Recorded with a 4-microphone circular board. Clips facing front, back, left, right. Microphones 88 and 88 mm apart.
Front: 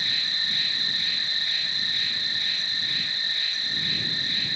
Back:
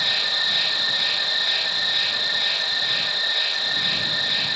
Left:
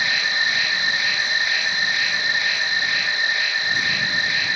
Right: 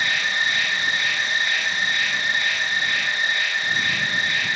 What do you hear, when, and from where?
0.0 s an insect: straight behind